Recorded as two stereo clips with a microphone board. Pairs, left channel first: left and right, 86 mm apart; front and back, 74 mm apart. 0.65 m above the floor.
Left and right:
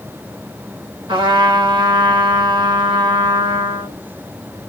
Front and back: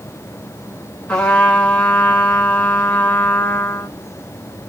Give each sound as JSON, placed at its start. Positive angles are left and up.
{"t": 1.1, "sound": "a trumpet", "azimuth_deg": -75, "distance_m": 2.0}